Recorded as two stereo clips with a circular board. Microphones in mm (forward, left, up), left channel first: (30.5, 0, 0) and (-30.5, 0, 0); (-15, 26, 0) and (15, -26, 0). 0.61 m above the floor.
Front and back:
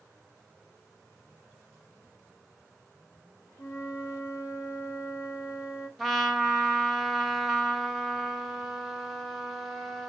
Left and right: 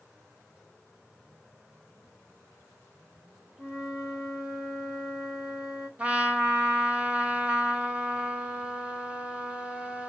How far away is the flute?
About 1.6 m.